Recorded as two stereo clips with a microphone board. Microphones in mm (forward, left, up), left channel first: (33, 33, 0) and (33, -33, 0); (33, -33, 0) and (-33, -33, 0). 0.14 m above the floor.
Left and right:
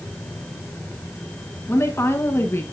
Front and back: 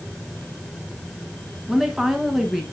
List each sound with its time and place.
1.7 s a woman speaking: 100° left, 1.4 m